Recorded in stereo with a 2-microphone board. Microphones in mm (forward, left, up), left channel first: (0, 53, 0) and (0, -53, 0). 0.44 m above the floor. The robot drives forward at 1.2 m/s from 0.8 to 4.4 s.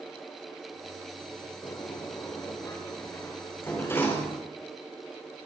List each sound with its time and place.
1.6 s a sliding door: 30° left (ahead or behind), 7 m; by 4.5 s 20° left (ahead or behind), 10 m